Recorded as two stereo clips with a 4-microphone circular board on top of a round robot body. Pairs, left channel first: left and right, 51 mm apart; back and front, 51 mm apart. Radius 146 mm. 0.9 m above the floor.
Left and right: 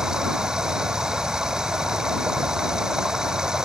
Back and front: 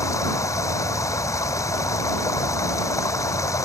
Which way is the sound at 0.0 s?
165° right.